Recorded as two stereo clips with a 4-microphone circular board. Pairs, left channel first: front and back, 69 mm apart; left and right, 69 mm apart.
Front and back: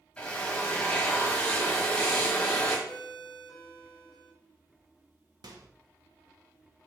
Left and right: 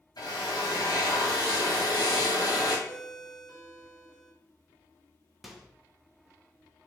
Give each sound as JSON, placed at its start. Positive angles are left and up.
{"t": 0.2, "sound": "a drill", "azimuth_deg": 75, "distance_m": 1.9}
{"t": 2.9, "sound": "a ringtone", "azimuth_deg": 0, "distance_m": 3.0}
{"t": 5.4, "sound": "a microwave", "azimuth_deg": 180, "distance_m": 1.0}